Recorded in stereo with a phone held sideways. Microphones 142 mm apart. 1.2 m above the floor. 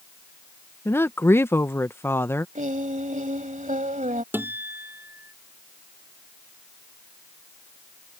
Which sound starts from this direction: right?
Singing, at 2.5 s.